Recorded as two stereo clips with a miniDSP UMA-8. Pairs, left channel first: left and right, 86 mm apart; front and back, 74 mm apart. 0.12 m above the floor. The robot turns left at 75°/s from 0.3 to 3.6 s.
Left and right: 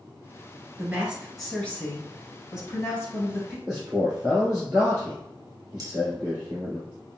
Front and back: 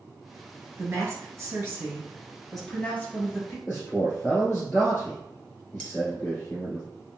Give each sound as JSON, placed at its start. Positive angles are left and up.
{"t": 0.8, "sound": "a woman speaking", "azimuth_deg": -140, "distance_m": 1.5}
{"t": 3.7, "sound": "a man speaking", "azimuth_deg": -40, "distance_m": 1.9}
{"t": 5.8, "sound": "cutlery clinking", "azimuth_deg": -70, "distance_m": 1.2}